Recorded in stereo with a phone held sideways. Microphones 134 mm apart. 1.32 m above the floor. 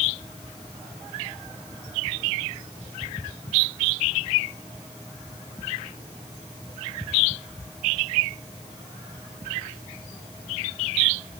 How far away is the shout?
No shout in this recording.